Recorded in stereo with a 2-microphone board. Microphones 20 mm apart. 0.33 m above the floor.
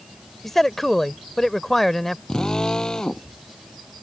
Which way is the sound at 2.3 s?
35° left (ahead or behind).